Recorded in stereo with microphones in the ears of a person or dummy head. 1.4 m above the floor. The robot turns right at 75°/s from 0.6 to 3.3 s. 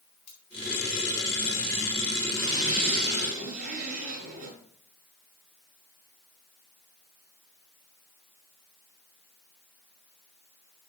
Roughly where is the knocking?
No knocking in this recording.